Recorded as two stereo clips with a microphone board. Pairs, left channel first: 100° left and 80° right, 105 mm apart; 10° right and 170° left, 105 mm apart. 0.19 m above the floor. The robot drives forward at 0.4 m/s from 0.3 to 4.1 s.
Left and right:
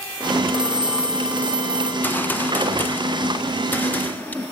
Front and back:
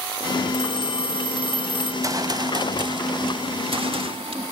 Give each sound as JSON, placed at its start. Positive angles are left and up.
{"t": 0.5, "sound": "a phone ringing", "azimuth_deg": 15, "distance_m": 3.5}
{"t": 2.0, "sound": "a gunshot", "azimuth_deg": 155, "distance_m": 0.9}